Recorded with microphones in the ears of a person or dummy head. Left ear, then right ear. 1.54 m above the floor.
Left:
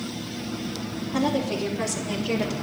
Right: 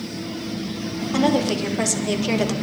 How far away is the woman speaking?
About 3.5 m.